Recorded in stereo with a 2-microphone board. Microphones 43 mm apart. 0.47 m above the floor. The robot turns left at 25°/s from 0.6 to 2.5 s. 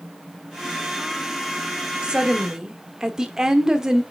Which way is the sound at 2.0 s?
20° right (ahead or behind).